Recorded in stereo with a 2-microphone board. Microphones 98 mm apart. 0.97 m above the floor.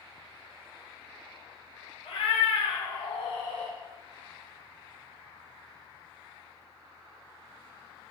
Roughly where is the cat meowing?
Left.